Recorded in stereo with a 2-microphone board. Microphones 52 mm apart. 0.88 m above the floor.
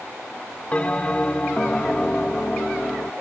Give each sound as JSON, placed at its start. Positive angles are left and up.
{"t": 0.7, "sound": "a bell", "side_deg": 25}